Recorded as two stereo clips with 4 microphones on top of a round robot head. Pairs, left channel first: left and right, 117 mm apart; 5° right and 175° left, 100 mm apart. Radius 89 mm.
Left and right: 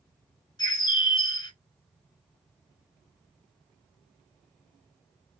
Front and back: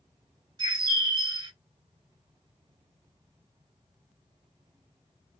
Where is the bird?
140° left, 1.7 m.